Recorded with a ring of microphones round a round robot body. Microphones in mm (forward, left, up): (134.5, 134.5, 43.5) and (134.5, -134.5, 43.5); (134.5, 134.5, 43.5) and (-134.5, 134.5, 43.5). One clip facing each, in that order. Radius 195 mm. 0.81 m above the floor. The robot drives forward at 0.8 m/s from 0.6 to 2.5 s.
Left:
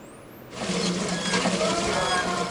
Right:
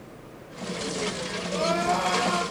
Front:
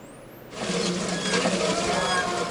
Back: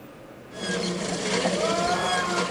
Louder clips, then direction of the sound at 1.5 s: Right 1 dB, even; 105° right.